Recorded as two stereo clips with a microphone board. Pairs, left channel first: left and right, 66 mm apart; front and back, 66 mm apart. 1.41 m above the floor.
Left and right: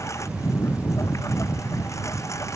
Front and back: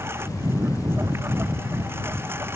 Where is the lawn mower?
130° left.